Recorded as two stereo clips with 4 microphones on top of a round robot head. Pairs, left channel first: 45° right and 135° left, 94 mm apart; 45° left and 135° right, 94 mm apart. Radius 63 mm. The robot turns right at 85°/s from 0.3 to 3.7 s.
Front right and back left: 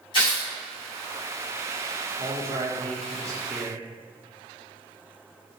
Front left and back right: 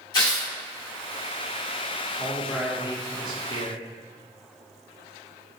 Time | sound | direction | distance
0.1 | tearing paper | straight ahead | 1.7 m
2.2 | a man speaking | 100° left | 1.0 m